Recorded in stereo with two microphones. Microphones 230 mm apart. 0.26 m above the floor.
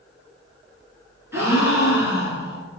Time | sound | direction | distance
1.3 | a gasp | 10° right (ahead or behind) | 1.3 m